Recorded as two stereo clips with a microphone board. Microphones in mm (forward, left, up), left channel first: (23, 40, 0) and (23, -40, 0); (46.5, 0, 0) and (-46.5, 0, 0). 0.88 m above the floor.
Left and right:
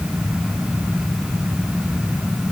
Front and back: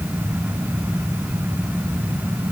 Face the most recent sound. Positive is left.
No sound to turn to.